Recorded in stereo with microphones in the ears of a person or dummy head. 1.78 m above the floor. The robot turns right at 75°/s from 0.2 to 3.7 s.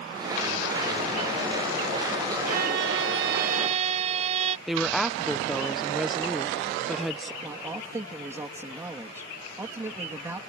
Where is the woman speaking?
Centre (ahead or behind).